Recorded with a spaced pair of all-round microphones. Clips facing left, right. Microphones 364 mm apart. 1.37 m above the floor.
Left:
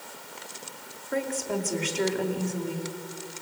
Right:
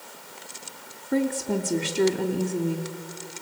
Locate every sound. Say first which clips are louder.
1.1 s a woman speaking: right 5 dB; 50° right (ahead or behind), 2.5 m